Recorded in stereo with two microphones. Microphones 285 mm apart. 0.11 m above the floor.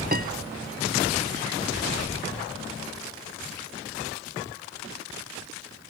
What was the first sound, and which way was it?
A piano, 30° right (ahead or behind).